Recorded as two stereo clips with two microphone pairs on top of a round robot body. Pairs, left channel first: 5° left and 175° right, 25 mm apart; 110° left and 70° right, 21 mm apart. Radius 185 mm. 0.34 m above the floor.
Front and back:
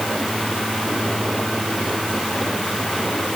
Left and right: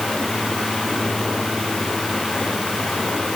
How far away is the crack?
No crack in this recording.